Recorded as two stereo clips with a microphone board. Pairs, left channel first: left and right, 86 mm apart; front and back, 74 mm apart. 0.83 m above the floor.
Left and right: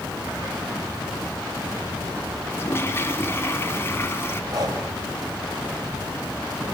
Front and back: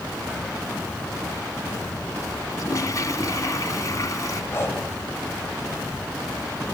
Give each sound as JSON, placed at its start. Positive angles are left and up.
{"t": 2.5, "sound": "a toilet flushing", "azimuth_deg": 35, "distance_m": 1.3}
{"t": 4.5, "sound": "breathing", "azimuth_deg": -55, "distance_m": 2.5}